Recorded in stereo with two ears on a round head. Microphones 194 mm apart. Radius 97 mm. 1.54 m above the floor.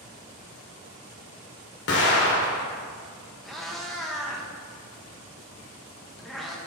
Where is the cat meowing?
Centre (ahead or behind), 0.7 m.